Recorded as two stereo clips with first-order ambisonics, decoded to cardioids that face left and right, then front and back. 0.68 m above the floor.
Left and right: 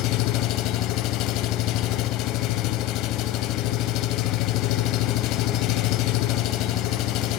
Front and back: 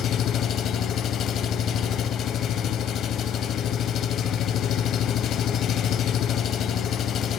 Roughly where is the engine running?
Ahead left.